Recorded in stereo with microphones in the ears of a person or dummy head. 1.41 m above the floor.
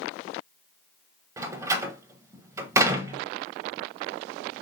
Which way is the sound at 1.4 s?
20° right (ahead or behind).